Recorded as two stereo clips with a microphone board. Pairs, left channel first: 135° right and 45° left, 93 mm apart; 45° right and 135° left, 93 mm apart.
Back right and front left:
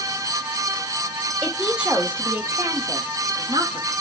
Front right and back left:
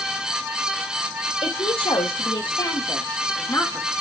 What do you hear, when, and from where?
1.4 s a woman speaking: 40° right, 2.5 m; by 3.9 s 25° left, 2.5 m